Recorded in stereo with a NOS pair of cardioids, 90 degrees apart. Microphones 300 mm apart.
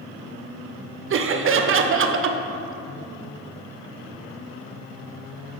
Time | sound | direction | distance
1.1 | laughter | 45° right | 0.6 m